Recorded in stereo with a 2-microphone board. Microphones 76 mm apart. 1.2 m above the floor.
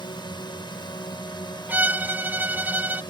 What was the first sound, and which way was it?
A drone, 75° left (ahead or behind).